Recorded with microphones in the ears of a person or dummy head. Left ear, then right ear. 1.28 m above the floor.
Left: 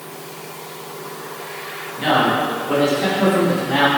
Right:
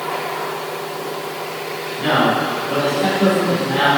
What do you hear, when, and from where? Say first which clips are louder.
2.0 s a man speaking: even; 60° left (ahead or behind), 2.5 m; by 3.9 s 80° left, 3 m